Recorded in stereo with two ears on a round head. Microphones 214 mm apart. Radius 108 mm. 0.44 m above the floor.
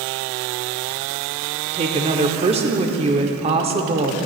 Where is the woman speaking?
25° right (ahead or behind), 0.8 m.